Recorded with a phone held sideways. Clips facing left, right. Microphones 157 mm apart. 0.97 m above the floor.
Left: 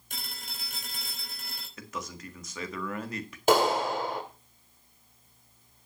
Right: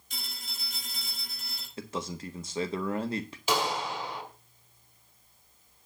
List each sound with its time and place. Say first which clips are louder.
0.1 s a phone ringing: left 2 dB; 55° left (ahead or behind), 4.5 m
1.8 s a man speaking: right 4 dB; 30° right (ahead or behind), 1.6 m
3.5 s a clap: left 7 dB; 50° left (ahead or behind), 2.5 m